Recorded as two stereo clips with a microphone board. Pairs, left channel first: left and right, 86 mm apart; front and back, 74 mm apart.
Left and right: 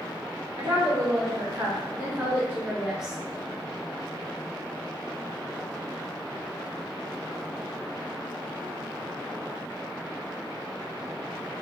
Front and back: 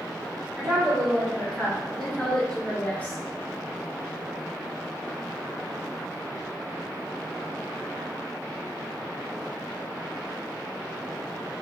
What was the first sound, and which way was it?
A woman speaking, 100° right.